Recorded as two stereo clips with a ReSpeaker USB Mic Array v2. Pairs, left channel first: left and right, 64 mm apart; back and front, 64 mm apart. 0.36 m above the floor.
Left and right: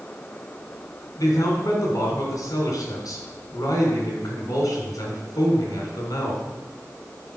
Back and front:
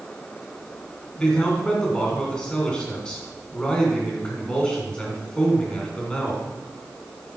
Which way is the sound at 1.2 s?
105° left.